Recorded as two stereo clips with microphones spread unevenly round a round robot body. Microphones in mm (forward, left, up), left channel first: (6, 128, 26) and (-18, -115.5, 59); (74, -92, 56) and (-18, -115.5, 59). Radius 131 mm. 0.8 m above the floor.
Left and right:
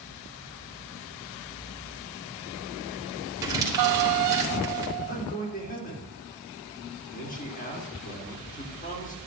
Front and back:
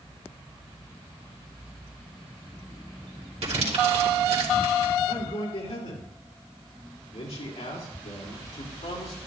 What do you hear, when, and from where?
3.4 s crumpling: 175° right, 3 m
5.1 s a man speaking: 30° left, 2.5 m